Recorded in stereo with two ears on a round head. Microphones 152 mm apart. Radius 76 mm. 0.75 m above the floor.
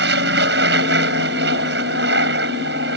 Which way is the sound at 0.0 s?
70° right (ahead or behind).